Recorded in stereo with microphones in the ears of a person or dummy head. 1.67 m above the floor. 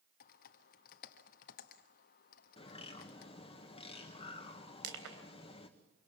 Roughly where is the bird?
Left.